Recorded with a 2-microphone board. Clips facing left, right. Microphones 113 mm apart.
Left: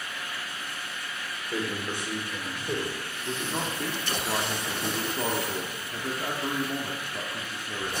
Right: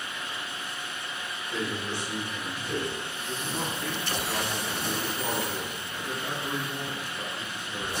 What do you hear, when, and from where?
1.5 s a man speaking: 45° left (ahead or behind), 2.5 m
3.2 s a man speaking: 65° left (ahead or behind), 1.1 m